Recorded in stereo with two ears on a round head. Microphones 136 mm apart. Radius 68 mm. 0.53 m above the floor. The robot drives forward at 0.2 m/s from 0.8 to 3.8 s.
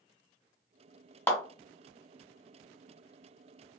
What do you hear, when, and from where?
1.3 s a clap: 15° left (ahead or behind), 1.0 m